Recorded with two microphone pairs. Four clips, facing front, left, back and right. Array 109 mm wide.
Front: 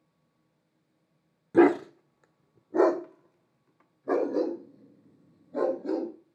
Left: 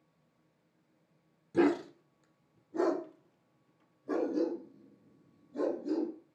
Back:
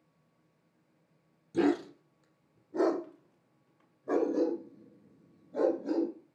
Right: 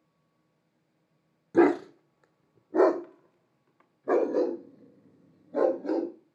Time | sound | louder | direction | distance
1.5 | a dog barking | right 6 dB, front 8 dB | 35° right | 1.5 m